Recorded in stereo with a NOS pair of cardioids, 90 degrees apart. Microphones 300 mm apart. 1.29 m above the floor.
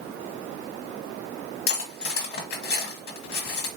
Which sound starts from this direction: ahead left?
Cutlery clinking, at 1.7 s.